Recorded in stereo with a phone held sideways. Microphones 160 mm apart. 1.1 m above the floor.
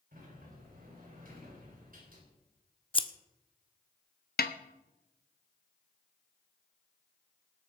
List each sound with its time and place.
0.1 s a sliding door: 65° right (ahead or behind), 4.5 m
2.9 s scissors: 30° left (ahead or behind), 0.8 m
4.4 s a snare drum: 75° left (ahead or behind), 0.9 m